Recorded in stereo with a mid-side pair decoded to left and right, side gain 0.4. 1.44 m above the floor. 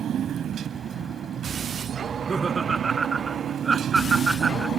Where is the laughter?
40° right.